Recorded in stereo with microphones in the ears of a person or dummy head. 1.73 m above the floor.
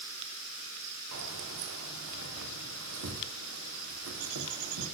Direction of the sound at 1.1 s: 65° right (ahead or behind).